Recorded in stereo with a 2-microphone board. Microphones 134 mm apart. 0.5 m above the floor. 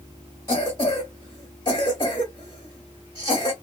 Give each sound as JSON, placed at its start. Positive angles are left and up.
{"t": 0.5, "sound": "a cough", "side_deg": 30, "distance_m": 0.9}